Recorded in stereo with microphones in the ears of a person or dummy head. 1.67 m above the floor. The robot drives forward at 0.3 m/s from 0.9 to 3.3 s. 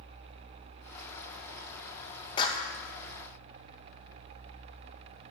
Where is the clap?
30° left (ahead or behind), 0.8 m.